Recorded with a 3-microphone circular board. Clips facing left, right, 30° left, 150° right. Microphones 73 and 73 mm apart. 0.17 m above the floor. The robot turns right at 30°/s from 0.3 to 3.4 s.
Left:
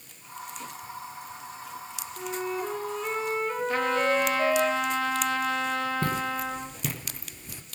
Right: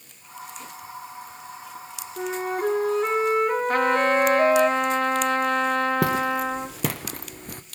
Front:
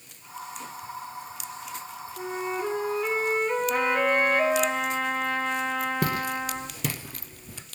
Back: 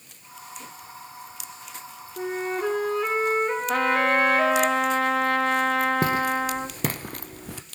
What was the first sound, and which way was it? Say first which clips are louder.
A flute: right 5 dB, back 3 dB; 130° right.